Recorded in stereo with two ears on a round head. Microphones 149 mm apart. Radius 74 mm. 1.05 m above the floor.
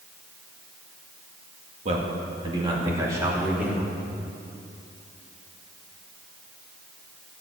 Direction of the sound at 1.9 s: 40° right (ahead or behind).